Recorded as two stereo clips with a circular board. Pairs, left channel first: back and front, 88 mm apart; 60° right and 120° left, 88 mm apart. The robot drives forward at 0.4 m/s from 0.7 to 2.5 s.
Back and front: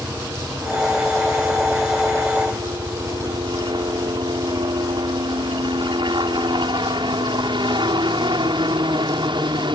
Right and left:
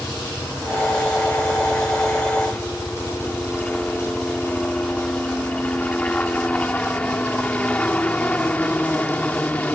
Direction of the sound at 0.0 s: 20° left.